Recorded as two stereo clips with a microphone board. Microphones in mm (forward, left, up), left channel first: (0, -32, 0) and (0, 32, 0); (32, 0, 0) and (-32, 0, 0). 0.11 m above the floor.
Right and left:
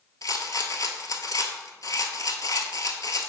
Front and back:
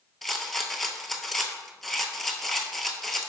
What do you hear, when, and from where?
0.2 s a rattle: 90° right, 0.7 m